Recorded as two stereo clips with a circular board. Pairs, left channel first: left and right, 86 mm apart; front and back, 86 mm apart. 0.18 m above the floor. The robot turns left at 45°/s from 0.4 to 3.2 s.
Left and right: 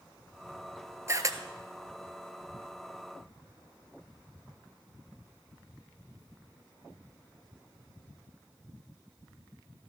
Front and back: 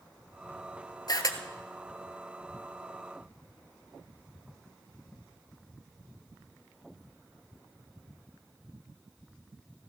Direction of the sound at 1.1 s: 35° right.